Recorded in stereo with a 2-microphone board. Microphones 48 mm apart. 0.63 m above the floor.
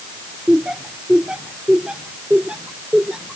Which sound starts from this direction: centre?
Laughter, at 0.5 s.